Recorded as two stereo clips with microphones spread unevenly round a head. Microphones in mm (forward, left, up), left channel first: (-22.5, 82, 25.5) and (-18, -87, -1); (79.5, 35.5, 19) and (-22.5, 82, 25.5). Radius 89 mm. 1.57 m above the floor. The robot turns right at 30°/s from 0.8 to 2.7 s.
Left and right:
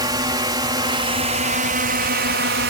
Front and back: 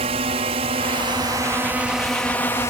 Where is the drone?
155° right; by 2.7 s 95° right.